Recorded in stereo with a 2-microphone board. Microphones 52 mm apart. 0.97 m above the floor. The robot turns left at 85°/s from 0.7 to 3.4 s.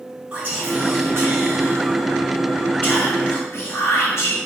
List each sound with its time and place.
0.3 s whispering: 30° right, 1.1 m; by 4.4 s 100° left, 1.1 m